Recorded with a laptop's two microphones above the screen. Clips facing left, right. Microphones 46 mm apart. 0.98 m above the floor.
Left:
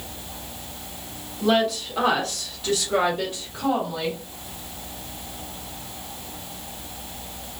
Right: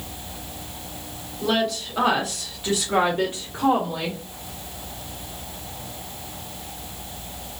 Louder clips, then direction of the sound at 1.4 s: Left 2 dB; 10° left (ahead or behind).